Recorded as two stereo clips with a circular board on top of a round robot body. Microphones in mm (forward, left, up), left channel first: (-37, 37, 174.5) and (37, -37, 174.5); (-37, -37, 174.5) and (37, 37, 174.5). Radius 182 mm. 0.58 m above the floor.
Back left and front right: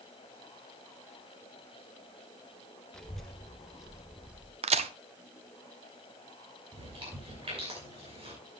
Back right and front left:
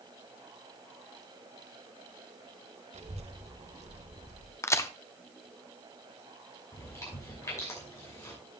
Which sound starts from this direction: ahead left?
A child speaking, at 2.9 s.